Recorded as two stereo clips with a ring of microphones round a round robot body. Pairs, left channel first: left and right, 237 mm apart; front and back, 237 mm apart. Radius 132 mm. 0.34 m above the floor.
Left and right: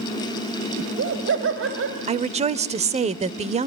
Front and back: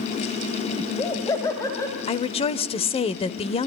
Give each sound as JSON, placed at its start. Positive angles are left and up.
{"t": 0.8, "sound": "laughter", "azimuth_deg": -75, "distance_m": 2.5}
{"t": 2.1, "sound": "a woman speaking", "azimuth_deg": -50, "distance_m": 0.9}